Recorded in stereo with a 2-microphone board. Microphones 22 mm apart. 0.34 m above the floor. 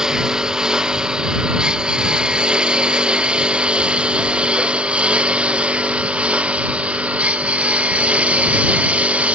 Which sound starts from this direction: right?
A lawn mower, at 0.0 s.